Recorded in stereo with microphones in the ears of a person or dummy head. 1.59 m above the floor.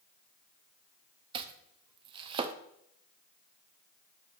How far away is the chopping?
About 0.6 m.